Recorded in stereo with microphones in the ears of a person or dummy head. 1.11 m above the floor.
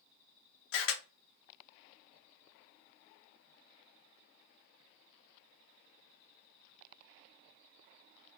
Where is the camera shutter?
60° left (ahead or behind), 0.8 m.